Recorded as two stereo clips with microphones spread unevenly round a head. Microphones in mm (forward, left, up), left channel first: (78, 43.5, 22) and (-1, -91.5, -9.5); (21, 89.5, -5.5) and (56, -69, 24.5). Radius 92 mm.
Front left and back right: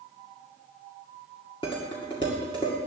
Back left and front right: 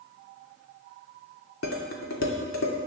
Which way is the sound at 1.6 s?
125° left.